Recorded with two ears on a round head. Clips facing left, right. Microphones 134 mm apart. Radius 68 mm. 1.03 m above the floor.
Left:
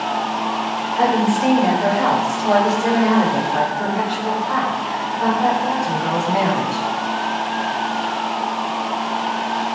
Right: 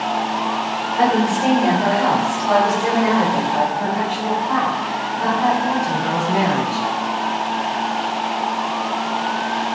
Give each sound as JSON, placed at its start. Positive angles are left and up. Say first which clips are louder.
{"t": 1.0, "sound": "a woman speaking", "louder": "even", "side_deg": -10, "distance_m": 3.0}